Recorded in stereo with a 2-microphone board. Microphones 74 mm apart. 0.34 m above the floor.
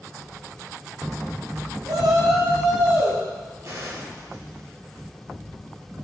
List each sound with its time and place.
1.9 s a shout: 75° right (ahead or behind), 4.5 m; by 3.2 s 70° right (ahead or behind), 5.5 m
3.6 s a gunshot: 45° right (ahead or behind), 5.5 m